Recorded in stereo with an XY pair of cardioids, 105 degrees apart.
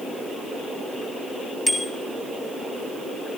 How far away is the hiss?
I don't hear a hiss.